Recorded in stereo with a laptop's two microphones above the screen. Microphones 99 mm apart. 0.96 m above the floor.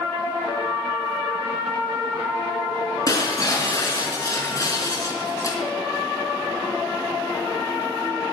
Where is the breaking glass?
35° left (ahead or behind), 3.5 m.